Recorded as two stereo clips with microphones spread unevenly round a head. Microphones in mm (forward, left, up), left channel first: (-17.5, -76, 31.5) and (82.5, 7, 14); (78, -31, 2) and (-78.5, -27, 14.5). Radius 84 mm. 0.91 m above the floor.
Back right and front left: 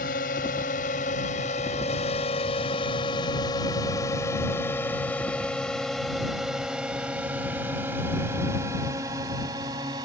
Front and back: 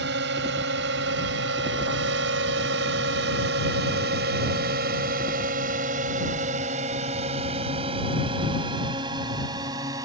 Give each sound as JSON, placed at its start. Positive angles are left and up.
{"t": 0.0, "sound": "a drone", "azimuth_deg": -175}